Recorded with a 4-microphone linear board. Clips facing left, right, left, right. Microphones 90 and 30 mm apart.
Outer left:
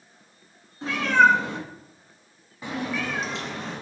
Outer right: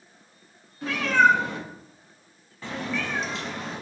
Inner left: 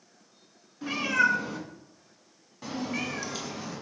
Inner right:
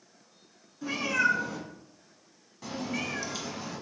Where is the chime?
I don't hear a chime.